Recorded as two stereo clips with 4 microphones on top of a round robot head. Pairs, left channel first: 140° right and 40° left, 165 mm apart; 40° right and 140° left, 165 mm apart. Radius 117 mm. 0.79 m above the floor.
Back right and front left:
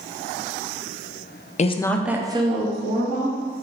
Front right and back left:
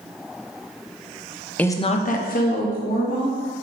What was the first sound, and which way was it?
A woman speaking, 120° right.